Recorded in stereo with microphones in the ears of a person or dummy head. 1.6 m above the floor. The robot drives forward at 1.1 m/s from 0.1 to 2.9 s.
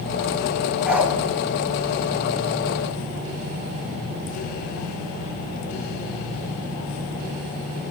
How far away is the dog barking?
About 3.5 m.